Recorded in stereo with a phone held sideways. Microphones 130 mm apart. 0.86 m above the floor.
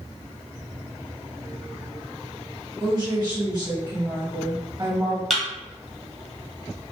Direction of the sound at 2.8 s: 35° right (ahead or behind).